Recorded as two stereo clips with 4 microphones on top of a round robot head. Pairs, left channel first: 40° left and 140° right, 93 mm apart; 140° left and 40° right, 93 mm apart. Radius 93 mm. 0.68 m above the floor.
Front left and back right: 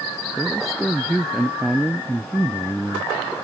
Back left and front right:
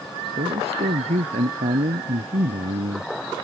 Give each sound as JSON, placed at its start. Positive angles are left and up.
{"t": 0.4, "sound": "a man speaking", "azimuth_deg": -50}